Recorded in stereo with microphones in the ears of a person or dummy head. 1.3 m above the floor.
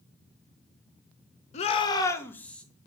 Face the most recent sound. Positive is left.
turn(degrees=5)  # may be behind; listen again after turning